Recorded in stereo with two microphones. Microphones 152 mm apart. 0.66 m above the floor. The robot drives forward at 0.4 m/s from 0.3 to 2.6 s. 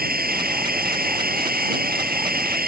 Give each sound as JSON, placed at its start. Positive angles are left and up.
{"t": 0.0, "sound": "a drone", "side_deg": -85}